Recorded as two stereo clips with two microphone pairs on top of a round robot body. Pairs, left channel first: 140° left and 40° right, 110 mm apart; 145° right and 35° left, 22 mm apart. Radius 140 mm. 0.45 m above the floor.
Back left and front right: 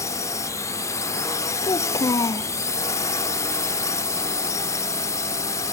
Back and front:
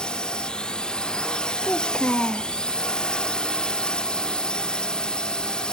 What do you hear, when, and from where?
0.0 s a drone: straight behind
1.6 s a child speaking: 165° right